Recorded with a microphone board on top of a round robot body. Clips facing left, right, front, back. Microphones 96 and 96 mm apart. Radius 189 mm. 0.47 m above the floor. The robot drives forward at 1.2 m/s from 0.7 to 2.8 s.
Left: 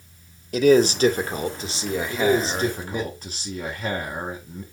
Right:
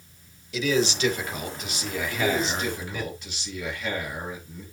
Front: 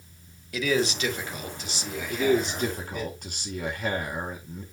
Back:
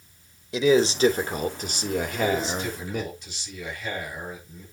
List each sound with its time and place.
0.5 s a man speaking: 120° left, 1.9 m; by 3.1 s 160° left, 3.5 m
2.1 s a man speaking: 35° left, 5.5 m; by 4.6 s 40° left, 5 m